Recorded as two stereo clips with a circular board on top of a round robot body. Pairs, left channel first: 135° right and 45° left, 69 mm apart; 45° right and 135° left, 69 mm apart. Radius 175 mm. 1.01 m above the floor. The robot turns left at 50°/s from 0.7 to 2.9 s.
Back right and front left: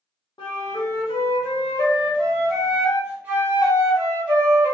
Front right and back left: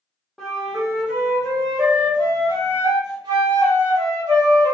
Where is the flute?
135° right, 0.6 m; by 4.7 s 115° left, 0.6 m.